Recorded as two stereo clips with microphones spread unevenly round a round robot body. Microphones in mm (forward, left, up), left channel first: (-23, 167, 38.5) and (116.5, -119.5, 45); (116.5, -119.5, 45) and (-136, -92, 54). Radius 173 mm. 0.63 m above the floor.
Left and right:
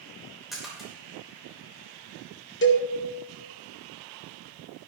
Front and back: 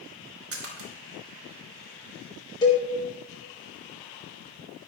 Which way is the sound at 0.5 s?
155° right.